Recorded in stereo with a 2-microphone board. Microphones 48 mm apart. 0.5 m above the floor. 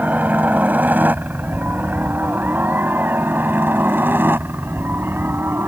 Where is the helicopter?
35° right (ahead or behind); by 5.7 s 50° right (ahead or behind).